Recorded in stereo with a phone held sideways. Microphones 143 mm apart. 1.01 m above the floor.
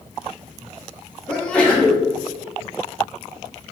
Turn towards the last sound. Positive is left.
turn(degrees=5)  # may be behind; listen again after turning